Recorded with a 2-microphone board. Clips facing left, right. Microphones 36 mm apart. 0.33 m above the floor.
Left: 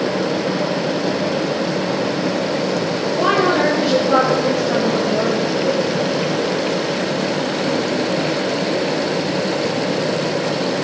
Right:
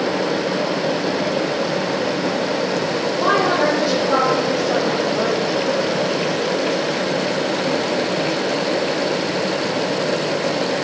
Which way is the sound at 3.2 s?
60° left (ahead or behind).